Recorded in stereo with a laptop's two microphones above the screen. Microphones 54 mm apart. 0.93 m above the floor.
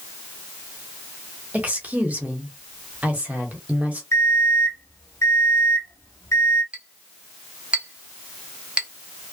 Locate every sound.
1.5 s a woman speaking: 30° right (ahead or behind), 0.8 m
4.1 s an alarm clock: 65° left (ahead or behind), 1.2 m
6.7 s a clink: 20° right (ahead or behind), 0.5 m